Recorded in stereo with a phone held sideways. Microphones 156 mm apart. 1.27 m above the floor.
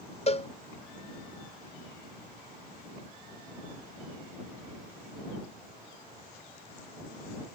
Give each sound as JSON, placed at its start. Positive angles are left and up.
{"t": 0.3, "sound": "a cowbell", "side_deg": 40}